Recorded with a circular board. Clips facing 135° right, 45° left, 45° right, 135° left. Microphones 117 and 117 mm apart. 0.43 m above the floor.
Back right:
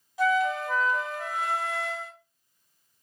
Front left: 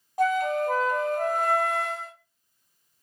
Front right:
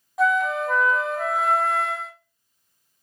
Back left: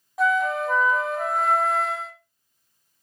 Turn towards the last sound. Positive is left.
turn(degrees=45)